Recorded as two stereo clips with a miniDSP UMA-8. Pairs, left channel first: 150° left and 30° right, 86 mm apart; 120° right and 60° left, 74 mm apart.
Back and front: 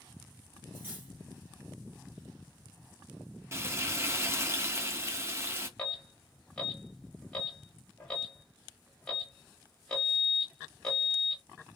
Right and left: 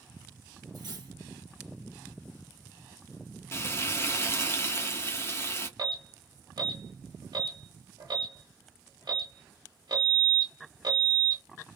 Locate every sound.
0.7 s cutlery clinking: 35° left, 1.0 m
3.5 s frying: 80° right, 0.6 m
5.8 s an alarm: 70° left, 1.2 m